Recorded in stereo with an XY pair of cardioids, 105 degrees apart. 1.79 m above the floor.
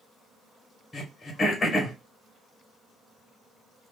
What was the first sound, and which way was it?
Throat clearing, 30° left.